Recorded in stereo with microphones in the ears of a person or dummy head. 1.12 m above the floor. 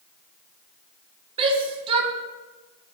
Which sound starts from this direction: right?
A shout, at 1.4 s.